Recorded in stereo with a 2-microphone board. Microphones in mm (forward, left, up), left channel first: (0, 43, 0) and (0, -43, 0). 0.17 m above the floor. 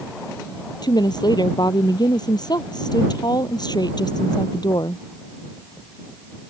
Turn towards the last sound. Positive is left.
turn(degrees=55)  # may be behind; listen again after turning